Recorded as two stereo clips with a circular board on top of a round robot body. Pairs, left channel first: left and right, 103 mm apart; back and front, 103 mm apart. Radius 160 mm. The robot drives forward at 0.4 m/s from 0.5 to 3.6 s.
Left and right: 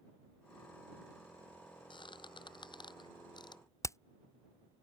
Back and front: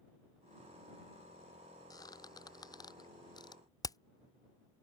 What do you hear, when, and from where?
1.9 s a squeak: 130° left; by 3.6 s 135° left
3.8 s hammering: 140° left